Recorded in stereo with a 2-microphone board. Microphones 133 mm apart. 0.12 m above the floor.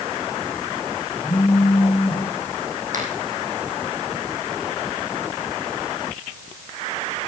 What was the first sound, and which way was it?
A phone buzzing, 5° right (ahead or behind).